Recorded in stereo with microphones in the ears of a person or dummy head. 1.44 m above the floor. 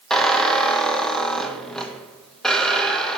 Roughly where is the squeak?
Centre.